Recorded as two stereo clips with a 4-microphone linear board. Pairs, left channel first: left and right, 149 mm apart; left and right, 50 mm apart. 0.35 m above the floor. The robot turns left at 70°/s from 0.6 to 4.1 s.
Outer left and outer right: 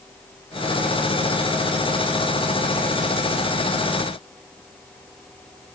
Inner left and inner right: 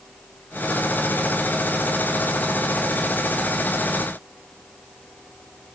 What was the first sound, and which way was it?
Only background noise.